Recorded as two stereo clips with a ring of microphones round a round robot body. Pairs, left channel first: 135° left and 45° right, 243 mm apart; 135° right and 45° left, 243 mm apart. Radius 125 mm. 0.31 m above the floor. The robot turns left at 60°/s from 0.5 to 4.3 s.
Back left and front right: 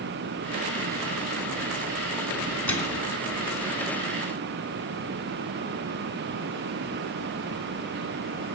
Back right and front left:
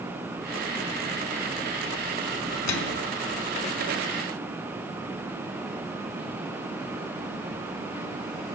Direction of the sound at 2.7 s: 140° right.